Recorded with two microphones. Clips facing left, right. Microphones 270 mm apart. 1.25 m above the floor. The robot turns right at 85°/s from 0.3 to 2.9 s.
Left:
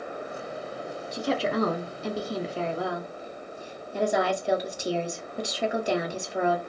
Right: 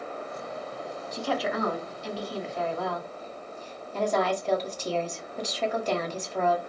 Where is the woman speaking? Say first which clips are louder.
Left 3 dB; 15° left, 0.6 m; by 6.6 s 165° left, 0.6 m.